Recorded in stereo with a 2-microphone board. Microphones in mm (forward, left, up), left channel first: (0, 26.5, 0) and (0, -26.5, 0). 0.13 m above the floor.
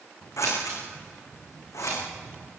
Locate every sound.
0.4 s scissors: 75° left (ahead or behind), 8 m